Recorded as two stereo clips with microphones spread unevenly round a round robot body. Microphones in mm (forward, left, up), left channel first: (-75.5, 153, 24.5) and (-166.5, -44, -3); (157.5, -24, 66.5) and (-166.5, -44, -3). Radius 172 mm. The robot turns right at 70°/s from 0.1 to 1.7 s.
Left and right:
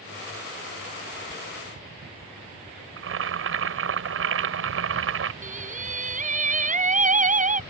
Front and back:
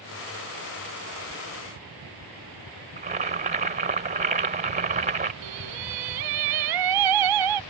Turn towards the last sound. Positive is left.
turn(degrees=-170)